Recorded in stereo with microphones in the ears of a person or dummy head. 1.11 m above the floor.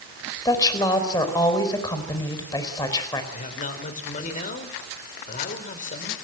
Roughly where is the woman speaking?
Left.